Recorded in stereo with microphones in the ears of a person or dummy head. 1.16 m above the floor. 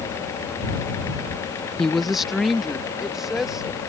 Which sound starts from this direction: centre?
A woman speaking, at 1.8 s.